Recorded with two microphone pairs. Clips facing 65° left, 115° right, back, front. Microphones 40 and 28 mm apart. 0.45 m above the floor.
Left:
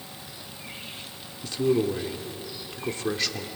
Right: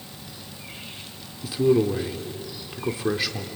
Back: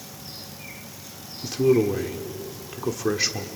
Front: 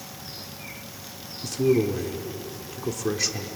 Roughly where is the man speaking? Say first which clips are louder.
Right 4 dB, back 2 dB; behind.